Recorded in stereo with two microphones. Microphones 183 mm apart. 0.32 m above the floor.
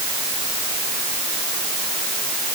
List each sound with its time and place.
Only background noise.